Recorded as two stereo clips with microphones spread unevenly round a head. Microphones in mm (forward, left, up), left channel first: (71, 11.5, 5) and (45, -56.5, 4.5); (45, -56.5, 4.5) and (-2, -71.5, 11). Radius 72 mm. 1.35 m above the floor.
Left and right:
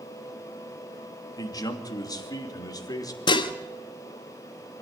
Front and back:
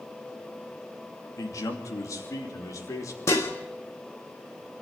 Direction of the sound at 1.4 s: 30° left.